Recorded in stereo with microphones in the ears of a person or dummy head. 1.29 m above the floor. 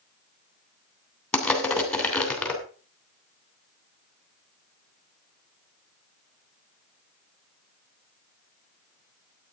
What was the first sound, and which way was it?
Crushing, centre (ahead or behind).